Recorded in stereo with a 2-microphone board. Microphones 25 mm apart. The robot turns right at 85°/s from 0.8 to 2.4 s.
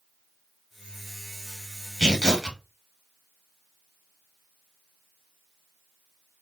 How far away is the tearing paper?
About 1.3 m.